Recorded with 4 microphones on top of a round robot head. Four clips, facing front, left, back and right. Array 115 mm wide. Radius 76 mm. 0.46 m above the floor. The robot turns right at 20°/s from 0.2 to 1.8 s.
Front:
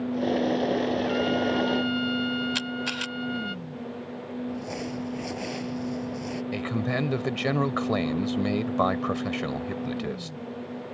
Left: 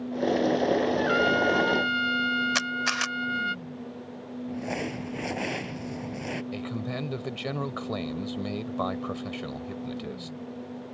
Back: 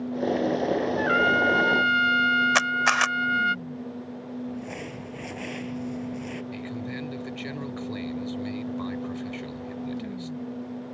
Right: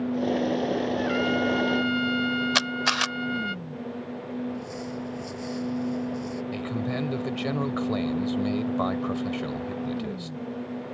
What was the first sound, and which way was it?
A trumpet, 155° left.